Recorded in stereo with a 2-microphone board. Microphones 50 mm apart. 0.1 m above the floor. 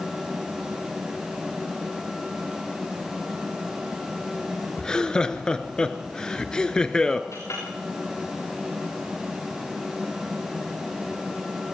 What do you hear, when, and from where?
4.8 s laughter: 15° left (ahead or behind), 1.2 m
7.3 s a clink: 80° left, 9.5 m